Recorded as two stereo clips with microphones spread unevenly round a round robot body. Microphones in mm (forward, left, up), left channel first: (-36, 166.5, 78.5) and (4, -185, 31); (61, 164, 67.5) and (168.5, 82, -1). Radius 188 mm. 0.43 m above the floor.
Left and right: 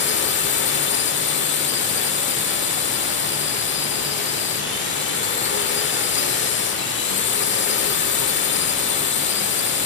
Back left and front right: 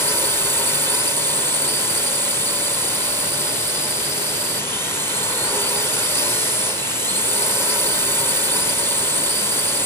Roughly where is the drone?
Ahead left.